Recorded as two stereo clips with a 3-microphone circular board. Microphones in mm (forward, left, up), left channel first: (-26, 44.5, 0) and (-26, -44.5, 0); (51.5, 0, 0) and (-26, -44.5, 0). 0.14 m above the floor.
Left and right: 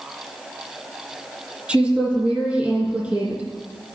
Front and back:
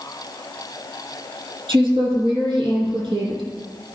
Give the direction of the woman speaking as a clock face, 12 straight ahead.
6 o'clock.